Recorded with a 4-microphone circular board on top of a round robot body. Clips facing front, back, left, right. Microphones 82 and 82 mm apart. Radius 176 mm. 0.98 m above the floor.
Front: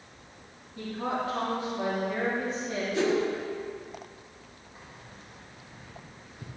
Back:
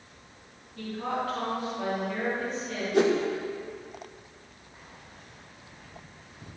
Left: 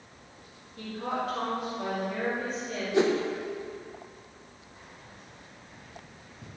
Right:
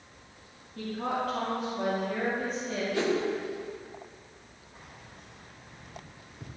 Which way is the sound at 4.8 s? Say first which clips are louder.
Front 1 dB, right 1 dB; 60° right.